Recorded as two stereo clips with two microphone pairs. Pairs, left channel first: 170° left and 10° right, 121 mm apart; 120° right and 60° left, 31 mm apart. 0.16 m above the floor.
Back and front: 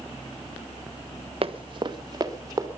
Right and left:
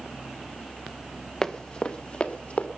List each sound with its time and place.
1.4 s running footsteps: 50° right, 1.5 m; by 2.7 s 75° right, 3 m